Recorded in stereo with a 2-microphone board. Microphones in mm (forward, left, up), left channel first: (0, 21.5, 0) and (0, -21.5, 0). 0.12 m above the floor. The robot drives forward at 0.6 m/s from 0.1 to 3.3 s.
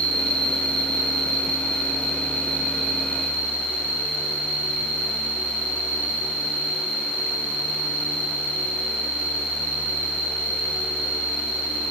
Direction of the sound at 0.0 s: 15° left (ahead or behind).